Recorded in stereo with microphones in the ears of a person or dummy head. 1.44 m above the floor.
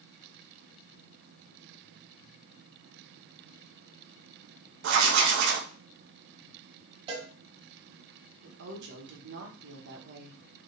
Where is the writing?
65° right (ahead or behind), 0.7 m.